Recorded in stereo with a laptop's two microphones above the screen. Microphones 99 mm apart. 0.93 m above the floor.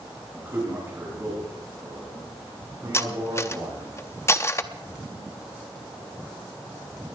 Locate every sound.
0.3 s a man speaking: 20° right (ahead or behind), 7 m; by 3.9 s 40° right (ahead or behind), 8.5 m
2.9 s cutlery clinking: 30° left (ahead or behind), 0.6 m